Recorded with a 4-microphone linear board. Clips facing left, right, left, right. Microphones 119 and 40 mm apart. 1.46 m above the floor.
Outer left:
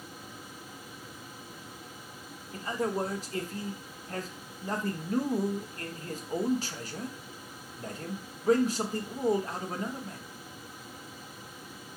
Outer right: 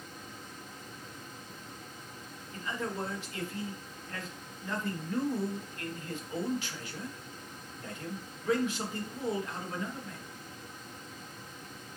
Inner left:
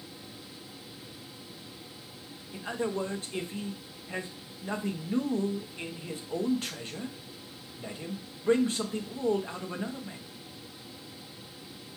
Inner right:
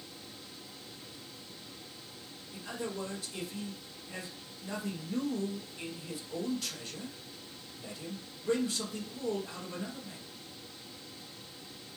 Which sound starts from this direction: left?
A man speaking, at 2.5 s.